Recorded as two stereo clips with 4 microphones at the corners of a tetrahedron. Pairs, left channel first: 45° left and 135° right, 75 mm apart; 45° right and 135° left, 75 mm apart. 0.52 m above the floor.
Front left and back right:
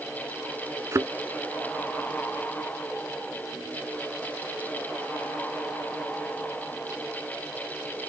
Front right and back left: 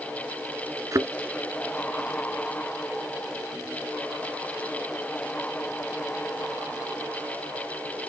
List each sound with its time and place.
0.9 s a thud: straight behind